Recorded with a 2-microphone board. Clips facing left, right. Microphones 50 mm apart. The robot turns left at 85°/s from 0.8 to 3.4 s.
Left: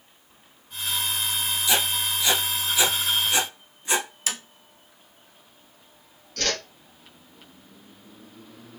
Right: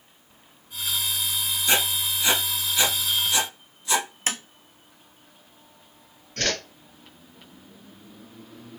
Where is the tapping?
35° right (ahead or behind), 0.6 m.